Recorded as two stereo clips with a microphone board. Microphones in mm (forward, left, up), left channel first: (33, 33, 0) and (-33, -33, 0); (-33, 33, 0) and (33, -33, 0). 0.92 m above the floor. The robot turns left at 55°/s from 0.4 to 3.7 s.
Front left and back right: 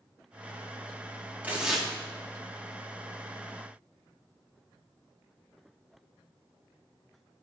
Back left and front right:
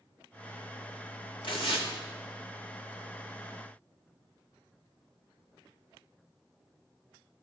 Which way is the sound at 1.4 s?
155° left.